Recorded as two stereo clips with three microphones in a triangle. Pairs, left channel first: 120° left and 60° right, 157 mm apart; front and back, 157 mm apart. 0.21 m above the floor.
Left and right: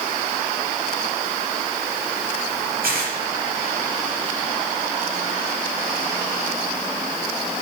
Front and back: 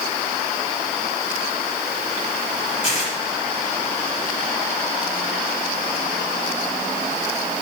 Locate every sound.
2.8 s tearing paper: 40° right, 5.5 m